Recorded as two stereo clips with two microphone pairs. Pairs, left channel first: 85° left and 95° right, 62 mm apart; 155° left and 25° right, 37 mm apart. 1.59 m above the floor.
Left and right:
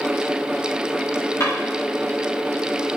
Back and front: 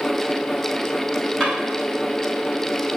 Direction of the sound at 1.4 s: 100° left.